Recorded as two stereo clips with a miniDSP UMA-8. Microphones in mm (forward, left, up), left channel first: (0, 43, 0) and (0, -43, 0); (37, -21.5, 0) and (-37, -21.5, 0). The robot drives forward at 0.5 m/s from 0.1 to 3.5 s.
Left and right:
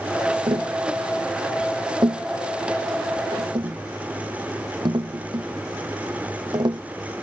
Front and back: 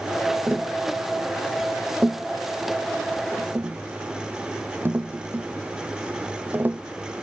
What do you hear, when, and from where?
0.5 s tapping: 110° right; by 6.8 s 120° right